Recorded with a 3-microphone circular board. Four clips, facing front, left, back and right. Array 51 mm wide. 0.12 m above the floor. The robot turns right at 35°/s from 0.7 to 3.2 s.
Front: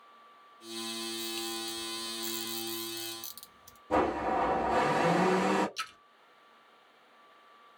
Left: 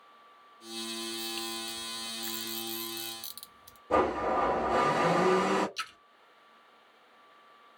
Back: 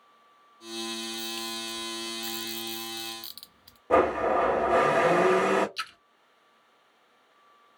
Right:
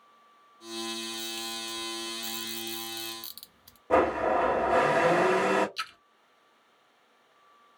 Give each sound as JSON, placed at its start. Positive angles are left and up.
{"t": 1.0, "sound": "a camera shutter", "azimuth_deg": 105, "distance_m": 0.7}
{"t": 3.9, "sound": "a blender", "azimuth_deg": -150, "distance_m": 1.9}
{"t": 5.8, "sound": "a splash", "azimuth_deg": -165, "distance_m": 1.1}